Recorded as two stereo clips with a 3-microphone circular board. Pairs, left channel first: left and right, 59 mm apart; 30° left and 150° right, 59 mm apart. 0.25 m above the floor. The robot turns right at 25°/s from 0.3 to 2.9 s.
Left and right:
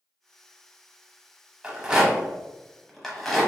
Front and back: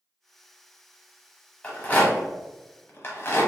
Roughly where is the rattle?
Ahead right.